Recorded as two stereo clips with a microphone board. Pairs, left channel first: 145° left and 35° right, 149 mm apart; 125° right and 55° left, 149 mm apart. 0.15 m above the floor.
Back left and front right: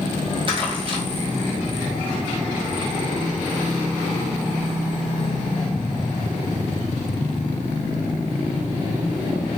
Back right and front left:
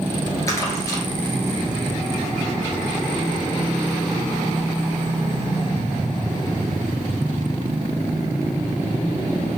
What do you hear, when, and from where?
0.5 s crumpling: 65° right, 1.2 m